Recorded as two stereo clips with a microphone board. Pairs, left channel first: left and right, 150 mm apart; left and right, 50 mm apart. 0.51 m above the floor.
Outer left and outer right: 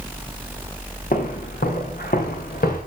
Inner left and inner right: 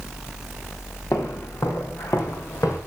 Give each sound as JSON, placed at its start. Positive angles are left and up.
{"t": 1.1, "sound": "footsteps", "side_deg": 80, "distance_m": 4.5}